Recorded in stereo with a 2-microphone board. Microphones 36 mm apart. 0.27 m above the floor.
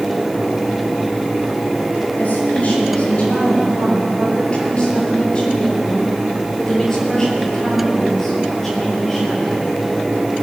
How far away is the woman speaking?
About 4.5 m.